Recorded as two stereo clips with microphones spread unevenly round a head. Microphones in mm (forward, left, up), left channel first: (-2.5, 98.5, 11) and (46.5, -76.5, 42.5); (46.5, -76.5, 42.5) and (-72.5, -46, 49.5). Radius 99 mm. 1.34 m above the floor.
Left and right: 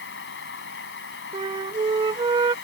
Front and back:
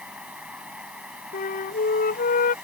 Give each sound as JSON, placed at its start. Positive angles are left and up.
{"t": 0.0, "sound": "a fan", "azimuth_deg": 80}
{"t": 1.3, "sound": "a flute", "azimuth_deg": -10}